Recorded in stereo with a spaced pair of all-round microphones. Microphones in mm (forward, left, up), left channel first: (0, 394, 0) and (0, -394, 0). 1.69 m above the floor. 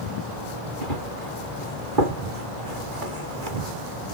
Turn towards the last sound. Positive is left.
turn(degrees=-75)  # may be behind; listen again after turning